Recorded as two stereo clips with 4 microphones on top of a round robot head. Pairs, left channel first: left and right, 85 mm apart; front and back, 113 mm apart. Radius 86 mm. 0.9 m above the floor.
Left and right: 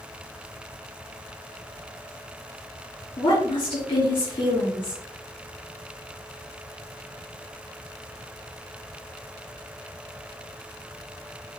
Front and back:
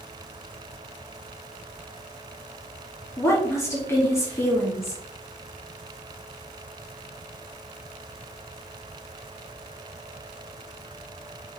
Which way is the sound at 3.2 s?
65° left.